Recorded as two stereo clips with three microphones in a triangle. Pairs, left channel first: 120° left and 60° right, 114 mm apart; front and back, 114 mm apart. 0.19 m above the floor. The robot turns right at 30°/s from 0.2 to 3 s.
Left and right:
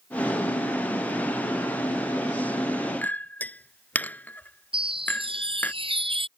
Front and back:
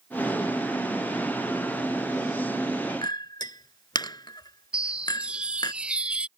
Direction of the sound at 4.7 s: 100° right.